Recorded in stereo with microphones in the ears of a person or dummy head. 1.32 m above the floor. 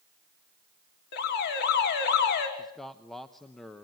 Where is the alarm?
60° left (ahead or behind), 5.5 m.